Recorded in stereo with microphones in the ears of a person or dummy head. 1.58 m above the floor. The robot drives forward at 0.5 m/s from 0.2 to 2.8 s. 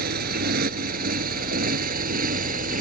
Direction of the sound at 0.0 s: 60° right (ahead or behind).